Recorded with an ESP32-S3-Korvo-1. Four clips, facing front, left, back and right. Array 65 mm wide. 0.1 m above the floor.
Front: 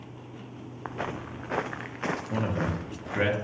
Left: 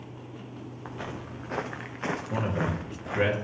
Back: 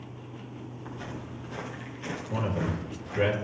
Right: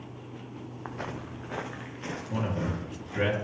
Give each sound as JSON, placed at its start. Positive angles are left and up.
{"t": 0.8, "sound": "footsteps", "azimuth_deg": -15, "distance_m": 0.8}
{"t": 2.3, "sound": "a man speaking", "azimuth_deg": 25, "distance_m": 1.9}